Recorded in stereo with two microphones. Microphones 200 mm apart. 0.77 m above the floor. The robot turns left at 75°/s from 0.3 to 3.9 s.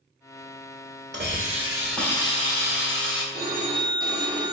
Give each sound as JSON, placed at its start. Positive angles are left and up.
{"t": 1.1, "sound": "a hiss", "azimuth_deg": -120, "distance_m": 1.2}
{"t": 3.3, "sound": "a phone ringing", "azimuth_deg": -115, "distance_m": 1.0}